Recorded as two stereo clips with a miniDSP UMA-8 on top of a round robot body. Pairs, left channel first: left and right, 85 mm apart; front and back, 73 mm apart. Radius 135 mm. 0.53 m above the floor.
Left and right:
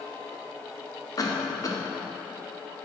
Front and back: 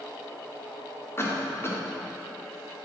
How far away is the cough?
About 1.4 m.